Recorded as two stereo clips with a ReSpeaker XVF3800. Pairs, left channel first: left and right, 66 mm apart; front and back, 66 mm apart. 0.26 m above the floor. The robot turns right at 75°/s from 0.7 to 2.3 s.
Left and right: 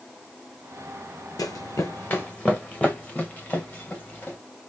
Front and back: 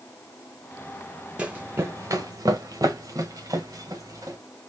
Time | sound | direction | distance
1.4 | running footsteps | 105° left | 0.8 m